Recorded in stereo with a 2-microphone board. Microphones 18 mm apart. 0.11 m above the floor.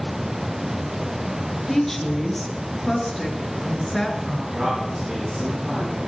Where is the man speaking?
45° right (ahead or behind), 9.5 m.